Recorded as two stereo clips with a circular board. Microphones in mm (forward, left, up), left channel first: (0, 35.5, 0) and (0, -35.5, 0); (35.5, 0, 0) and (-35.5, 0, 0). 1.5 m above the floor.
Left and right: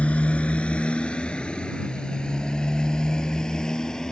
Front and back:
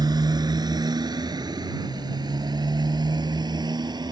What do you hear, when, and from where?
0.0 s a motorcycle: 160° left; by 4.1 s 170° left